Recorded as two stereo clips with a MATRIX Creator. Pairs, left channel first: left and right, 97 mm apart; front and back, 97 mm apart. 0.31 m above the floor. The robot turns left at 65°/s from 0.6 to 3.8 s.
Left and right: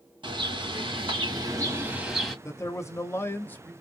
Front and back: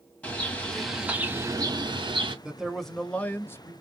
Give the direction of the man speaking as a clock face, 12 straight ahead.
8 o'clock.